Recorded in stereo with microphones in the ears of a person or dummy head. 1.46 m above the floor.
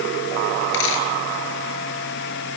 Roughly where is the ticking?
I don't hear ticking.